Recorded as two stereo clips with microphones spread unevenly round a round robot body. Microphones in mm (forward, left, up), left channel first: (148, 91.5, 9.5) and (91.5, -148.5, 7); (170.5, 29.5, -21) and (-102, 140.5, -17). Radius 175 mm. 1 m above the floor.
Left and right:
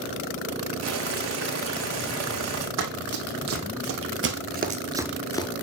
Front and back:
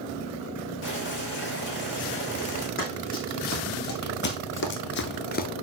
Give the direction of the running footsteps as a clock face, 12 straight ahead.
3 o'clock.